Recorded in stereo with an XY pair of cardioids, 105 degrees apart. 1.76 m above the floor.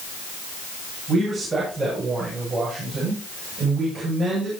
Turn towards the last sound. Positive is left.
turn(degrees=-40)